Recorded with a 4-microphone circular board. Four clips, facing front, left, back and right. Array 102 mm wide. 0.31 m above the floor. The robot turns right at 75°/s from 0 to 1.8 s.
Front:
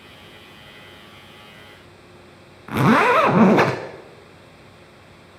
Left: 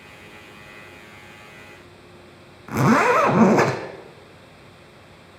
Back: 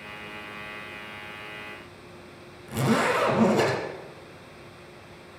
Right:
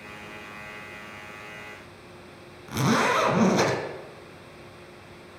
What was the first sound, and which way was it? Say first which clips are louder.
A zipper: left 6 dB, front 8 dB; 30° left.